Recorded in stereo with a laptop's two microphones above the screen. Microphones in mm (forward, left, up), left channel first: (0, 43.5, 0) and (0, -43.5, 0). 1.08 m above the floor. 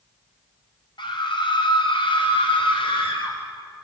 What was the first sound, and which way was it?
A scream, 65° left (ahead or behind).